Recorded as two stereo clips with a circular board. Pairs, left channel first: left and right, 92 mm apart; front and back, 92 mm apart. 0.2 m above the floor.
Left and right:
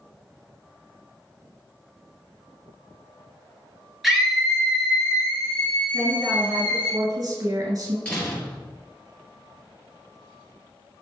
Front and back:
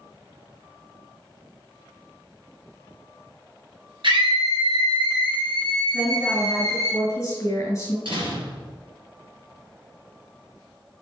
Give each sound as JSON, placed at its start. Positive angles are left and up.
{"t": 4.0, "sound": "a scream", "azimuth_deg": -175, "distance_m": 2.5}
{"t": 5.9, "sound": "a woman speaking", "azimuth_deg": -55, "distance_m": 3.0}
{"t": 8.1, "sound": "a door slam", "azimuth_deg": 170, "distance_m": 3.0}